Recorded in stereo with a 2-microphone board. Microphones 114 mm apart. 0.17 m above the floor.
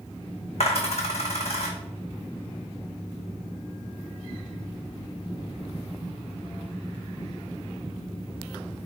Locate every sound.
0.6 s a dropped coin: 65° left (ahead or behind), 0.9 m